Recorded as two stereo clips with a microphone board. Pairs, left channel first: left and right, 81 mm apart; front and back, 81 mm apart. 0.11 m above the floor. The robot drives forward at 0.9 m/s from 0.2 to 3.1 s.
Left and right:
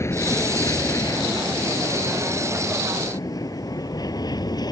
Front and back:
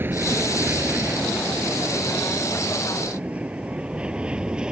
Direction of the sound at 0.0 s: 130° left.